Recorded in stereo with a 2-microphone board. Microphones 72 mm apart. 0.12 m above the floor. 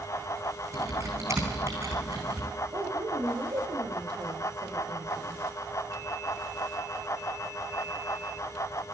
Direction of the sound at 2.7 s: 65° right (ahead or behind).